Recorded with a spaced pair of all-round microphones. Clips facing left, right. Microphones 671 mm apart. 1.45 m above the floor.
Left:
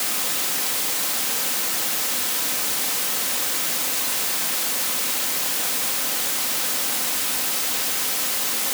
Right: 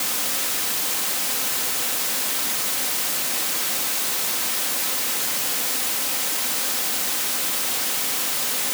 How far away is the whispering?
I don't hear whispering.